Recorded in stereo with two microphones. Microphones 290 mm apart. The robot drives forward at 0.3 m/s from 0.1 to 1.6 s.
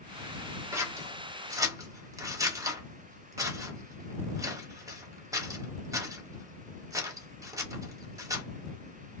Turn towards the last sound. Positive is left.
turn(degrees=-10)  # may be behind; listen again after turning